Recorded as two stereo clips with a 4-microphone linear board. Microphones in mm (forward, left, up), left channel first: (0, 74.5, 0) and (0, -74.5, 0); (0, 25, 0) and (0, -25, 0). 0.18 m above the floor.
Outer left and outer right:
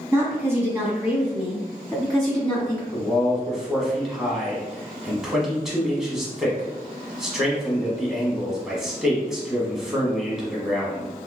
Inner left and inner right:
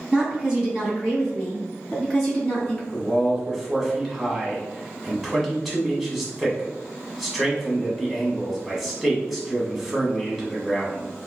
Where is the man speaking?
5° right (ahead or behind), 1.1 m.